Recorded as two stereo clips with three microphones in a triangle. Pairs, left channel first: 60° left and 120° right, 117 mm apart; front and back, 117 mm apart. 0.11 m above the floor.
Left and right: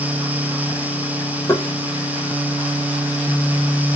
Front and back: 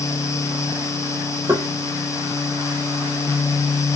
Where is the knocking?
120° left, 2.5 m.